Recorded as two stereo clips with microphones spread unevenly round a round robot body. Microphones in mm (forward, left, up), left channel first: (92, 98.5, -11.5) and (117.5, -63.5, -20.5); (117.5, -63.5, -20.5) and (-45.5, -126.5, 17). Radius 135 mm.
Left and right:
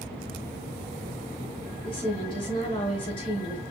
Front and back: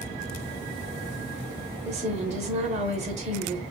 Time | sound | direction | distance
1.9 | a woman speaking | 150° left | 0.9 m